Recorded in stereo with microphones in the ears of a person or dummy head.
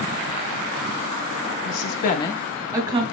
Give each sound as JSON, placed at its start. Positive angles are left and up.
{"t": 1.6, "sound": "a woman speaking", "side_deg": 80, "distance_m": 0.7}